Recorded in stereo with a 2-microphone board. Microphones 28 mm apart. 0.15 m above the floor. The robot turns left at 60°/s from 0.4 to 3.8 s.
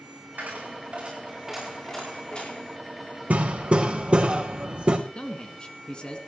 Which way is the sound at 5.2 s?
35° left (ahead or behind).